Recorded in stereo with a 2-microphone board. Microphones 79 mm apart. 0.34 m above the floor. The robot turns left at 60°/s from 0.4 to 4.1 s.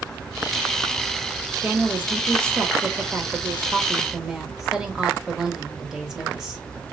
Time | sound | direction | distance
1.6 | a woman speaking | 15° right | 1.1 m